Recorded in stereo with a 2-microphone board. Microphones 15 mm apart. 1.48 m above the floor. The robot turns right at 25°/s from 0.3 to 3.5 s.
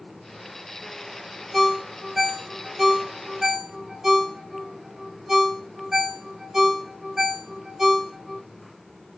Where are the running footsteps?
I don't hear running footsteps.